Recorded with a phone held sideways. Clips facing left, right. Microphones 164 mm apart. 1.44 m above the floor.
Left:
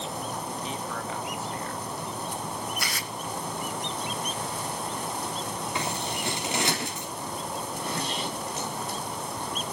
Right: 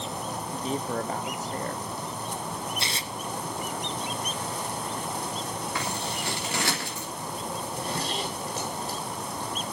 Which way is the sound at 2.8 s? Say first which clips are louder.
Even; 25° right (ahead or behind).